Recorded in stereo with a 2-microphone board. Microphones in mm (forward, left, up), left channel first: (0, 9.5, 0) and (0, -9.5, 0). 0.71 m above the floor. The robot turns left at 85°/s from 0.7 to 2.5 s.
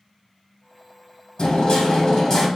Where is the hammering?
105° left, 1.9 m; by 2.5 s 15° left, 1.9 m.